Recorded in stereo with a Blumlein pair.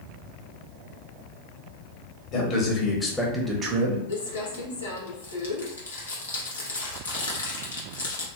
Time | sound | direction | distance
2.3 | a man speaking | 35° left | 1.2 m
4.1 | crumpling | 70° left | 0.8 m